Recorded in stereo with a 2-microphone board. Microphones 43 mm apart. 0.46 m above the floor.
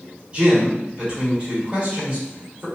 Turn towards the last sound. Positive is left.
turn(degrees=-25)  # may be behind; listen again after turning